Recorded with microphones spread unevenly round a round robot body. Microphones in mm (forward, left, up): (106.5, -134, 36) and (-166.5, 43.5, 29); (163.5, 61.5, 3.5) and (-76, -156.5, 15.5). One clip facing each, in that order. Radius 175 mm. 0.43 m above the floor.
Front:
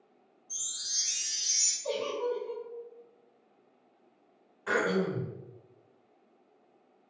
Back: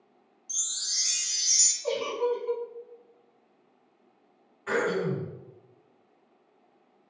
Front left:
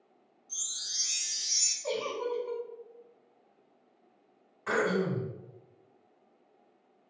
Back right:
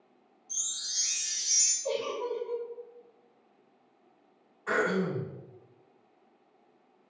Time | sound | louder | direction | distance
0.5 | a chime | back 1 dB, back right 1 dB | 140° left | 0.8 m
1.8 | a giggle | back 4 dB, back right 1 dB | 95° left | 0.6 m
4.7 | throat clearing | back 2 dB, even | 30° left | 1.8 m